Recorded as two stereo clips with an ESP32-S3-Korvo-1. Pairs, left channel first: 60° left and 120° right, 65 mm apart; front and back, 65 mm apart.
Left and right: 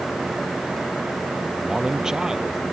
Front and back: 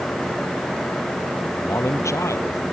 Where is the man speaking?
40° right.